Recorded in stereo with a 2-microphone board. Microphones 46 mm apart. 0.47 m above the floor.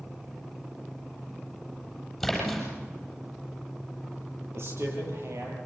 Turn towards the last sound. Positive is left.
turn(degrees=-65)  # may be behind; listen again after turning